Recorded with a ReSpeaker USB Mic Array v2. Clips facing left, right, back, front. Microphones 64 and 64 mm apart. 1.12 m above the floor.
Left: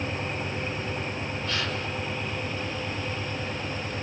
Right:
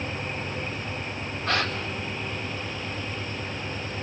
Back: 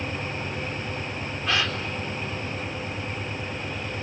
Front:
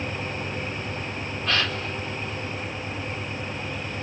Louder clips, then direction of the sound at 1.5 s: Right 6 dB, even; 105° right.